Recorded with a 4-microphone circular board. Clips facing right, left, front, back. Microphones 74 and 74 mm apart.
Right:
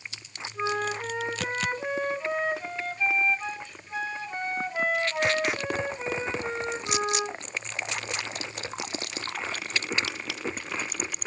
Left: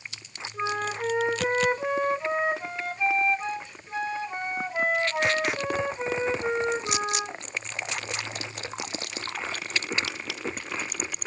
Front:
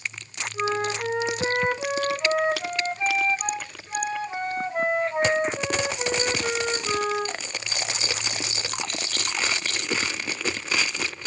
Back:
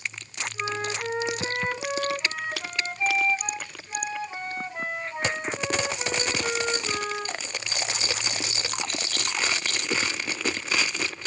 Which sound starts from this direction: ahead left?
A flute, at 0.5 s.